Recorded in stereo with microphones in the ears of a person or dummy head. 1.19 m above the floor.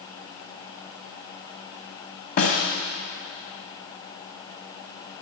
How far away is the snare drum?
About 1.7 m.